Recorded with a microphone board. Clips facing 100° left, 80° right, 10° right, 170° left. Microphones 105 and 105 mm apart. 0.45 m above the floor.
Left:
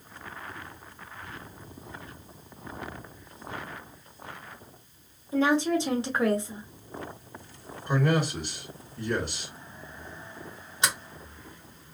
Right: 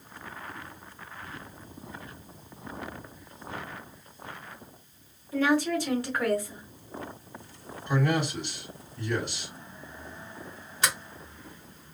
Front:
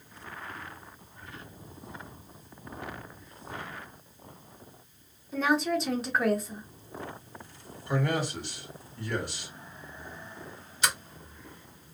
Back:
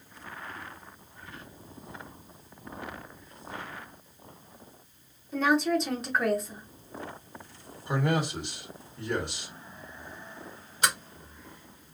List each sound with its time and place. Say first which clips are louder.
5.3 s a woman speaking: left 1 dB, back 2 dB; 80° left, 0.9 m
7.9 s a man speaking: left 1 dB, back 1 dB; 115° left, 1.7 m
10.8 s a sliding door: left 1 dB, back 2 dB; 160° left, 1.5 m